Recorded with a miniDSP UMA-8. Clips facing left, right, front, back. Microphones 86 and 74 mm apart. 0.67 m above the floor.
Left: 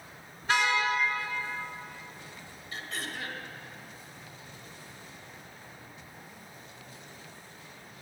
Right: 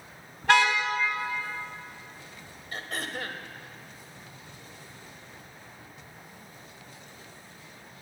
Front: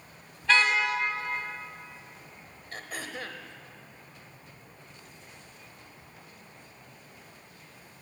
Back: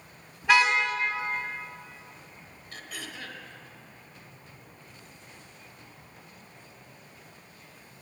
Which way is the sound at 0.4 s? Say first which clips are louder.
Right 5 dB, back 2 dB; 105° right.